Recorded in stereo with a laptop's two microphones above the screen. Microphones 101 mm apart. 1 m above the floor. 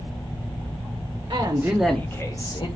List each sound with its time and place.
1.3 s a man speaking: 40° right (ahead or behind), 0.8 m; by 2.7 s 45° left (ahead or behind), 1.2 m